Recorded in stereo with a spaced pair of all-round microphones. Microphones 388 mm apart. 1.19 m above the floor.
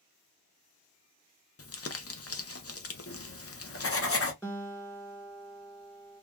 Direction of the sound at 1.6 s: 40° left (ahead or behind).